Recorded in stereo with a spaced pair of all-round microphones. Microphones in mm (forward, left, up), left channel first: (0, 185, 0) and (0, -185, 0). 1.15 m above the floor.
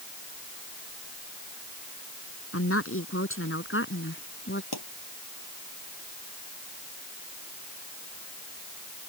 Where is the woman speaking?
35° left (ahead or behind); by 4.6 s 30° left (ahead or behind).